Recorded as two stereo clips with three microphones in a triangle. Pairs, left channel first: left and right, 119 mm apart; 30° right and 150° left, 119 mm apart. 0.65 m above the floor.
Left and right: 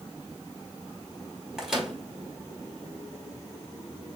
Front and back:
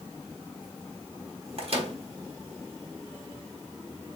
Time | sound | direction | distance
1.6 | a microwave | 175° right | 1.3 m